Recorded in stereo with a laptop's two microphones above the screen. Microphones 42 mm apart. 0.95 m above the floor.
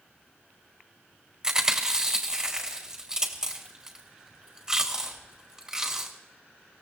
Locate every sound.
1.4 s chewing: 15° right (ahead or behind), 4 m